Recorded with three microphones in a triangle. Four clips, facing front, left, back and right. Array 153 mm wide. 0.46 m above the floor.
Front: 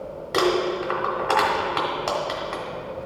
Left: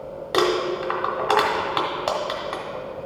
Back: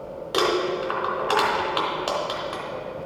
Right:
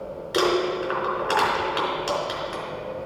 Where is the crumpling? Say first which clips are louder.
Left 1 dB, front 1 dB; 80° left, 1.9 m.